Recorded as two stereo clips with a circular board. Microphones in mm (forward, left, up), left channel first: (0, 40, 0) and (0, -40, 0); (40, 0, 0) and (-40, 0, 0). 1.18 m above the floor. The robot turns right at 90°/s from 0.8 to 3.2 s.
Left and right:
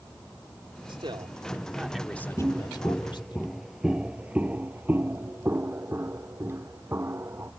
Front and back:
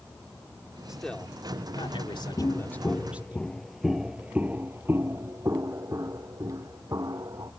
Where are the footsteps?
45° right; by 7.5 s 145° right.